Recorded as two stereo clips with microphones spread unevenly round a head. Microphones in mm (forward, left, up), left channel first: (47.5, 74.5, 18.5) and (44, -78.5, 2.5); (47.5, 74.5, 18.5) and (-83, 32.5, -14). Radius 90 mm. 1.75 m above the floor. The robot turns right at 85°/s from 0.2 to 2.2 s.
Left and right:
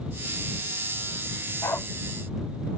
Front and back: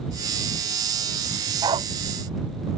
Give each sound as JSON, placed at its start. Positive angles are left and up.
{"t": 1.6, "sound": "a dog barking", "azimuth_deg": 140}